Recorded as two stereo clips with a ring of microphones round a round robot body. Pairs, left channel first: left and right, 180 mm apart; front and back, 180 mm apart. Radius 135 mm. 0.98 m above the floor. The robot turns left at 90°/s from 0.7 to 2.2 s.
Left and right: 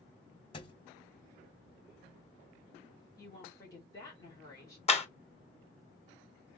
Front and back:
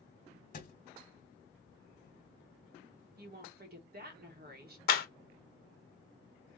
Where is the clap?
35° left, 1.2 m.